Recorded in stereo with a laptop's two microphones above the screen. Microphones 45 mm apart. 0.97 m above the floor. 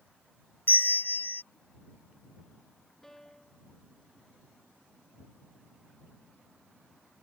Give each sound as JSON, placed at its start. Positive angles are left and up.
{"t": 0.7, "sound": "a bell", "side_deg": 55}
{"t": 3.0, "sound": "a piano", "side_deg": 10}